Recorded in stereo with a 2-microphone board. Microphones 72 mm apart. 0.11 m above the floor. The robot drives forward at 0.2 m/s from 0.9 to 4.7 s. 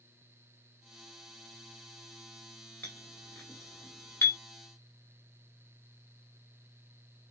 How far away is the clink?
About 1.2 m.